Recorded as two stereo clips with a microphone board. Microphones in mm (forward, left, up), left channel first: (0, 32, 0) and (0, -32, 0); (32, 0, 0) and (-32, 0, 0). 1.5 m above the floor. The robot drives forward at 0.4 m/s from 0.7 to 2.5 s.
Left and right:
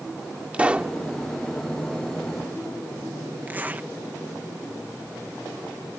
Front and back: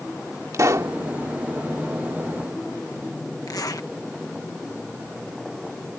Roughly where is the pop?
Behind right.